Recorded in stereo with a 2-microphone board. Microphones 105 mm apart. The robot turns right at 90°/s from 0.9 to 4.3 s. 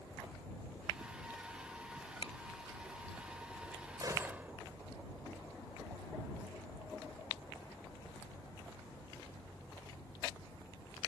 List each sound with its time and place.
2.2 s a finger snap: 75° left (ahead or behind)
4.0 s a gunshot: 45° right (ahead or behind); by 4.5 s 15° right (ahead or behind)